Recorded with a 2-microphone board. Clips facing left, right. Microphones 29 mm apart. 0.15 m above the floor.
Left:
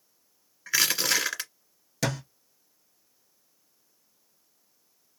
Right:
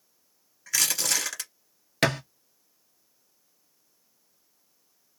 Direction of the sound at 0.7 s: 25° left (ahead or behind).